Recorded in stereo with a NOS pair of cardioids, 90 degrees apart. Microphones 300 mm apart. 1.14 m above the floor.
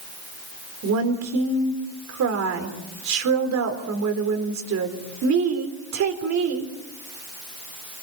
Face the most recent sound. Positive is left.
turn(degrees=-65)